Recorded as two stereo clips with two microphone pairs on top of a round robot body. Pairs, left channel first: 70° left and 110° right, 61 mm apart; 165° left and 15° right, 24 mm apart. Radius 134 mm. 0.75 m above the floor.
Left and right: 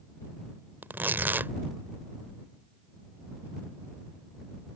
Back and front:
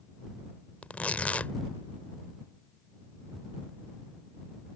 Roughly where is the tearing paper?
Behind.